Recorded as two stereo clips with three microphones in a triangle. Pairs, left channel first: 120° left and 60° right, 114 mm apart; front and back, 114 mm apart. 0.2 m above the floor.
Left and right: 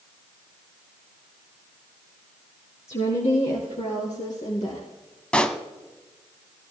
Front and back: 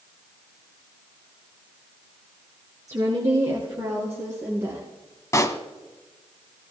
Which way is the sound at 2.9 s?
125° left.